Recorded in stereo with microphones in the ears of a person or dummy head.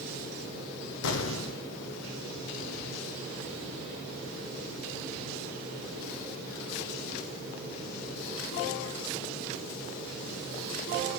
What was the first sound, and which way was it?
An explosion, 65° left (ahead or behind).